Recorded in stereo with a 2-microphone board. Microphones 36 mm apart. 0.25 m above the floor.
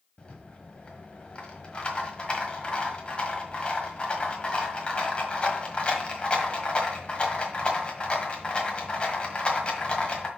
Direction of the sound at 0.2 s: 30° left (ahead or behind).